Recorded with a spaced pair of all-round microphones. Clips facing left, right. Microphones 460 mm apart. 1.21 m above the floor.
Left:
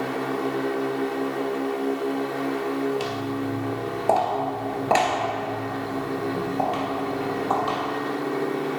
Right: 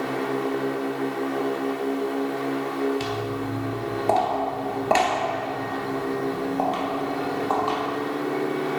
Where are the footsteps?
40° right (ahead or behind), 1.5 m; by 7.8 s 35° left (ahead or behind), 2.5 m.